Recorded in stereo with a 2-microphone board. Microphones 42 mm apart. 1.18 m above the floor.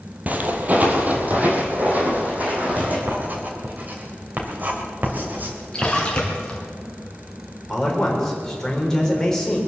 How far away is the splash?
About 3 m.